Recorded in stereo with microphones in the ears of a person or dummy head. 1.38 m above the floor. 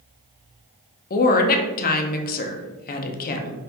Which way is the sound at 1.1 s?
50° left (ahead or behind).